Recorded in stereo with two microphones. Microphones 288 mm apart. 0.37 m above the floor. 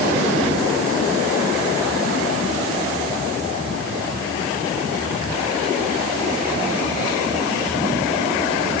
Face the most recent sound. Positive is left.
No sound to turn to.